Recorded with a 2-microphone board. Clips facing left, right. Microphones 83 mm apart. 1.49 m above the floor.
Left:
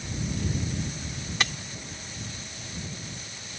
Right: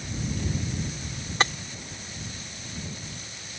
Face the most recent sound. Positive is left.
turn(degrees=-35)  # may be behind; listen again after turning